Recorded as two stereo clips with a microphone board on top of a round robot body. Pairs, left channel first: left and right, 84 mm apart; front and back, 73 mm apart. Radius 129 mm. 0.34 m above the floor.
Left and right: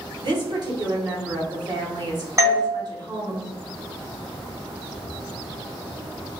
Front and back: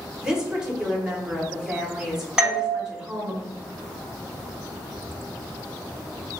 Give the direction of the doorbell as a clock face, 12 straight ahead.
4 o'clock.